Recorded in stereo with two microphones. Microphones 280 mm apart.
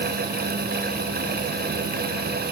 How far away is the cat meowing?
No cat meowing in this recording.